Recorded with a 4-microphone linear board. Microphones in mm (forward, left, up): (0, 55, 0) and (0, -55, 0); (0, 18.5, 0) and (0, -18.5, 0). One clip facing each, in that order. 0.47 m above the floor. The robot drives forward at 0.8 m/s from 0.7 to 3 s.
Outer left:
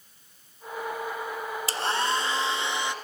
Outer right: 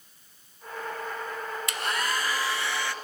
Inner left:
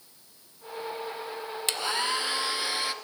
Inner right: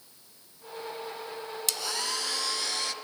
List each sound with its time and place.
1.7 s a hair dryer: 35° left (ahead or behind), 1.6 m; by 2.9 s 20° left (ahead or behind), 2.5 m